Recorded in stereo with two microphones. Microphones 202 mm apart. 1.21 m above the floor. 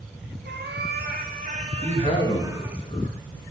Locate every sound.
0.5 s a cat meowing: 60° right (ahead or behind), 1.3 m; by 2.8 s 10° right (ahead or behind), 1.2 m
1.8 s a man speaking: 30° left (ahead or behind), 2.5 m